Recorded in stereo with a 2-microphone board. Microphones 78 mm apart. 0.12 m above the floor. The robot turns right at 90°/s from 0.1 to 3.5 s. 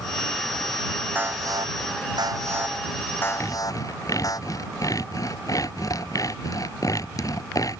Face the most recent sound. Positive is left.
turn(degrees=45)  # may be behind; listen again after turning